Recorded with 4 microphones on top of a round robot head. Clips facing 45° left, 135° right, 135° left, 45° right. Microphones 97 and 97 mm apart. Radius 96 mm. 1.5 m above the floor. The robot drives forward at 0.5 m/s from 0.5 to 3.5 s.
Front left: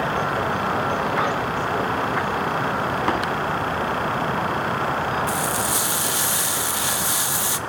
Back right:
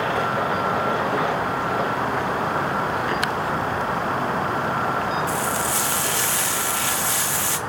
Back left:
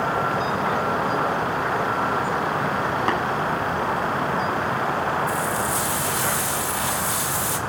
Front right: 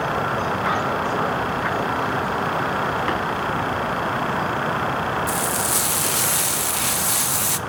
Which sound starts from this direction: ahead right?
Frying, at 5.3 s.